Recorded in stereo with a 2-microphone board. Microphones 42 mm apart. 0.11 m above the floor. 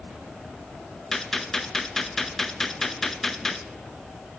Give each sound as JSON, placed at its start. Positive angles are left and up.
{"t": 1.1, "sound": "a gunshot", "side_deg": 5, "distance_m": 0.7}